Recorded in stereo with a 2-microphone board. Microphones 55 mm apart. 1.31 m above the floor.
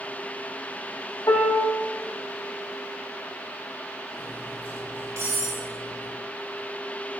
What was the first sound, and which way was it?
A piano, 85° left.